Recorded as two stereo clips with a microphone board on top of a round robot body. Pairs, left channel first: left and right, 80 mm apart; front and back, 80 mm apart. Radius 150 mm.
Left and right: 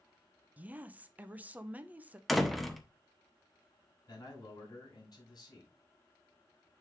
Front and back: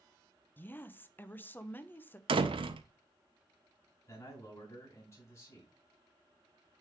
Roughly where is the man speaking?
Ahead left.